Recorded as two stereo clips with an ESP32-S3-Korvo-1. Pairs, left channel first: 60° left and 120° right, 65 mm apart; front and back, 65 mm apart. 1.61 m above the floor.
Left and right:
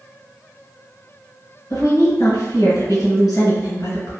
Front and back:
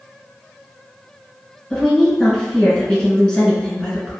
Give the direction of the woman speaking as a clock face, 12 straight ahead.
10 o'clock.